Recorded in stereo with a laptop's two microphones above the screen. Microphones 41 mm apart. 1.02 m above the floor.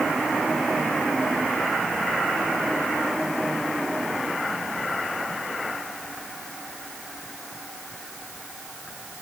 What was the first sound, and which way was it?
Only background noise.